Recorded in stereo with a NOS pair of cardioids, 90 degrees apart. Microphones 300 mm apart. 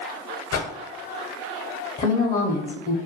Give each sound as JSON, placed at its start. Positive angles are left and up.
{"t": 0.5, "sound": "a whoosh", "azimuth_deg": 50, "distance_m": 0.8}
{"t": 2.0, "sound": "a woman speaking", "azimuth_deg": 25, "distance_m": 0.6}